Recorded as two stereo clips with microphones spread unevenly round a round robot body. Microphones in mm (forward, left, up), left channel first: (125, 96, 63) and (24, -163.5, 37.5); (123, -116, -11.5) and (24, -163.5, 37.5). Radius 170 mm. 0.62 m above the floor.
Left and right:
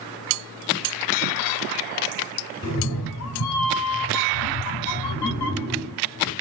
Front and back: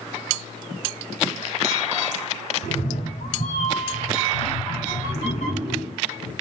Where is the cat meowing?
30° left, 0.9 m; by 6.3 s 90° left, 3 m.